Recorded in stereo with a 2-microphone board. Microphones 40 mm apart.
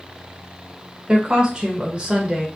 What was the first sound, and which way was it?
A woman speaking, 20° right (ahead or behind).